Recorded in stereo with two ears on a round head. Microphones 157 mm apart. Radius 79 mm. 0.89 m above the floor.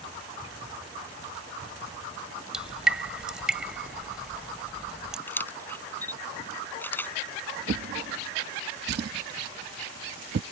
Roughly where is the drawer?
Right.